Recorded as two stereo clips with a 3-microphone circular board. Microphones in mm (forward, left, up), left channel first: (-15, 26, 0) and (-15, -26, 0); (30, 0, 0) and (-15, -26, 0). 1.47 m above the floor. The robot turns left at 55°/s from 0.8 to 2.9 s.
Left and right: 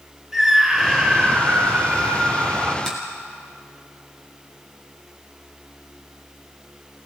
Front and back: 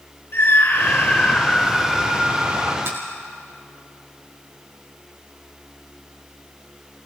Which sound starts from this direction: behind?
A finger snap, at 2.9 s.